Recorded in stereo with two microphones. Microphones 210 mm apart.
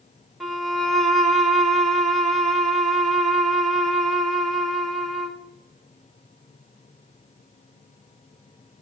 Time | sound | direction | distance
0.4 | a violin | centre (ahead or behind) | 0.7 m